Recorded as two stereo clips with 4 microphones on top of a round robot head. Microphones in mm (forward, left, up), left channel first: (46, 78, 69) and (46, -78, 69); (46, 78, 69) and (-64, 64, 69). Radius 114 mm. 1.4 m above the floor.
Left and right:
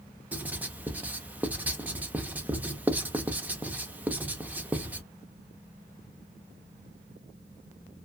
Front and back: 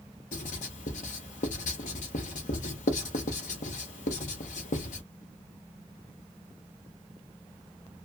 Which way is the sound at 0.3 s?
10° right.